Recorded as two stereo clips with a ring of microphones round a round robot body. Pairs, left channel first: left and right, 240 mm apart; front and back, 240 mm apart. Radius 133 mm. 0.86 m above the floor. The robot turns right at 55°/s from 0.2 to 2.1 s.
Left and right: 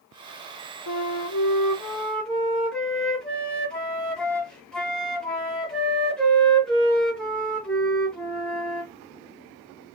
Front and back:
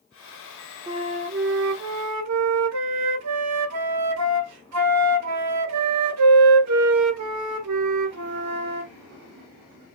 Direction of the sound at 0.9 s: 110° left.